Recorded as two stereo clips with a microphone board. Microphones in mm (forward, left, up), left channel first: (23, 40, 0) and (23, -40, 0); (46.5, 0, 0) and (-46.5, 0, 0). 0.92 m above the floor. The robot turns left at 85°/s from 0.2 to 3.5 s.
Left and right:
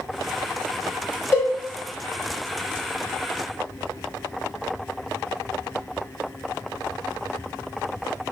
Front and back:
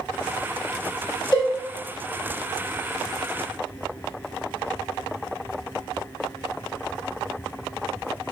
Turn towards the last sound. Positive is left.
turn(degrees=-155)